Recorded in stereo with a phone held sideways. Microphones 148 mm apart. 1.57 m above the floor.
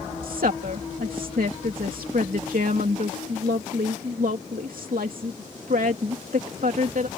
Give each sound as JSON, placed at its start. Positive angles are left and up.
{"t": 0.2, "sound": "a woman speaking", "side_deg": -85}